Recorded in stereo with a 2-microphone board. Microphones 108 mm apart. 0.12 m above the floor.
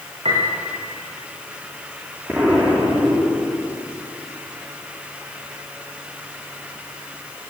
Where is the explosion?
15° right (ahead or behind), 7 m.